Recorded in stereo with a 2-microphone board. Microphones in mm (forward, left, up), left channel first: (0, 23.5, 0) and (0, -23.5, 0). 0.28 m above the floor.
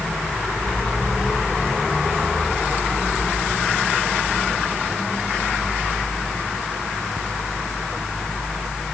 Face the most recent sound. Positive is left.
No sound to turn to.